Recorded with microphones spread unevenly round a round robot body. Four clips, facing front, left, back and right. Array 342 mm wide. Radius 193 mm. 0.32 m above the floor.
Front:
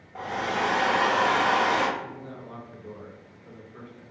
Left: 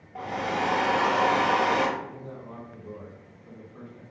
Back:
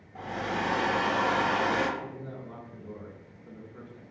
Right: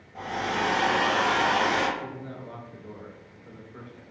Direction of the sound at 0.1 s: 30° left.